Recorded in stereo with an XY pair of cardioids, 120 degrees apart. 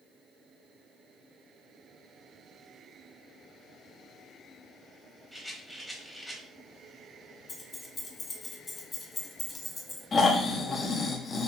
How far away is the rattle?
About 0.9 m.